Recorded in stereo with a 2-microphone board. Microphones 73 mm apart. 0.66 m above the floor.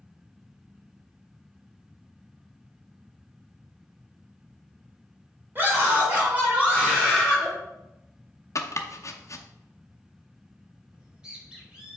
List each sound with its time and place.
5.5 s a scream: 30° right (ahead or behind), 2.5 m; by 7.5 s 5° right (ahead or behind), 2.5 m
8.6 s chopping: 50° left (ahead or behind), 0.6 m
10.9 s a bird: 10° right (ahead or behind), 1.4 m